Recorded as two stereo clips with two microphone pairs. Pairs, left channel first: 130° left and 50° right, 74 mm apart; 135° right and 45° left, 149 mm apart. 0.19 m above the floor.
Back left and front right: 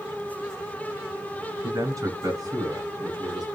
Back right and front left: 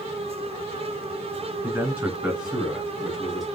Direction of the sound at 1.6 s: 25° right.